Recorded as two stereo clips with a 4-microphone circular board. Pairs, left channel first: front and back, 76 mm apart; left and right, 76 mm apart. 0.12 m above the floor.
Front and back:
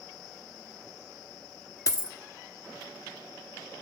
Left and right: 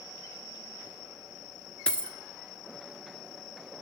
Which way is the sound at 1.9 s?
20° left.